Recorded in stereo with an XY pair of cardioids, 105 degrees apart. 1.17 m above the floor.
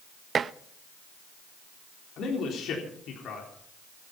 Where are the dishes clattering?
45° right, 0.7 m.